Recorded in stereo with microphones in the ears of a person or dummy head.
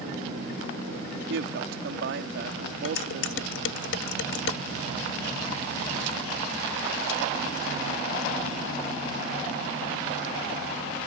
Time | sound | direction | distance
1.3 | a woman speaking | 75° right (ahead or behind) | ?
2.9 | dishes clattering | 80° left | ?